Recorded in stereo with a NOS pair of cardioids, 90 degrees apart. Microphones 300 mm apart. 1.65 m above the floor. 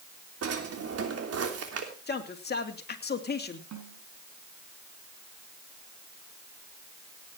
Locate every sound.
0.4 s a drawer: 50° right, 3 m
2.1 s a man speaking: 35° left, 3 m
3.7 s a snare drum: 60° right, 5 m